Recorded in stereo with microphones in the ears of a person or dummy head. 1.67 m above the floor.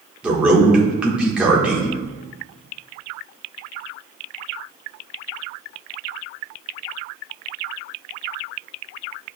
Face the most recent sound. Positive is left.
turn(degrees=-5)  # may be behind; listen again after turning